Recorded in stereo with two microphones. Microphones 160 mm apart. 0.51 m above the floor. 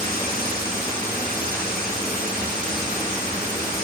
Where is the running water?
70° left (ahead or behind), 5 m.